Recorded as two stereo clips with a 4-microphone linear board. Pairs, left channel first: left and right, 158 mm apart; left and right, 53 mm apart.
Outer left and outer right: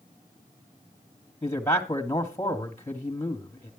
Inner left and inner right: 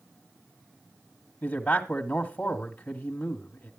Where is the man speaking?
20° left (ahead or behind), 1.1 m.